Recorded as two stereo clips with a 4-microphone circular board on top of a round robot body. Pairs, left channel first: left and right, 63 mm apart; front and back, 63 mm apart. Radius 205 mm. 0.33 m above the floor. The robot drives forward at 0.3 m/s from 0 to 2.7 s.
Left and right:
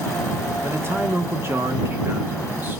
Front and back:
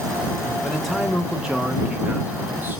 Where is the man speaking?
85° right, 1.1 m; by 2.8 s 135° right, 1.3 m.